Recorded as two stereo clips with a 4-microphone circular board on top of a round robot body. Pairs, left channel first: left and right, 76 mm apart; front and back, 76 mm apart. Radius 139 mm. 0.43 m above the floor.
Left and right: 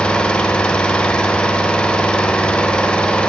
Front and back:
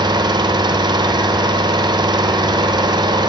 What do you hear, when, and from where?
0.0 s an engine running: 165° left, 0.9 m